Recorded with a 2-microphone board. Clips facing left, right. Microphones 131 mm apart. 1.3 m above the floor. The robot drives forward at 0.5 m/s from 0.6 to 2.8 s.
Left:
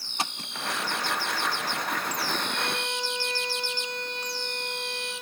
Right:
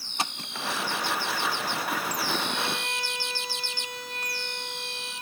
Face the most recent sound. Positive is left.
turn(degrees=-5)  # may be behind; listen again after turning